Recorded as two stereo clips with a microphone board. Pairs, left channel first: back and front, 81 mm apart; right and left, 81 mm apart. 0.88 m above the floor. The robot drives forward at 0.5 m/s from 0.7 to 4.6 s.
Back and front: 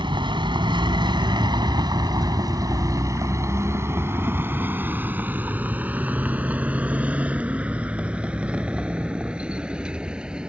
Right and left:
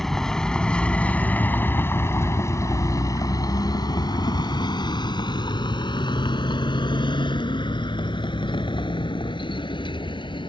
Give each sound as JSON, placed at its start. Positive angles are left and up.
{"t": 0.0, "sound": "a vehicle", "azimuth_deg": -5}